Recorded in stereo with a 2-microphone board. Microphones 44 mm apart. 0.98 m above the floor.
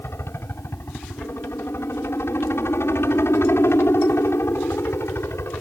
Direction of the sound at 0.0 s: 65° left (ahead or behind).